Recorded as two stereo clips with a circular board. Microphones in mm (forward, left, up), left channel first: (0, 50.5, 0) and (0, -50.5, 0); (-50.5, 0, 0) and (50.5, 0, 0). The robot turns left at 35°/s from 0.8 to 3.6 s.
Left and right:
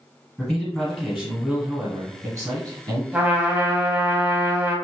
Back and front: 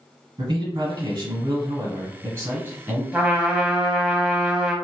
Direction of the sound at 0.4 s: Straight ahead.